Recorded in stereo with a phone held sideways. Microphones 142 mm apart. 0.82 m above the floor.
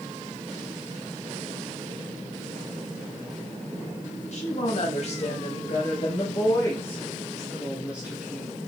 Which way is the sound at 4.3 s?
55° left (ahead or behind).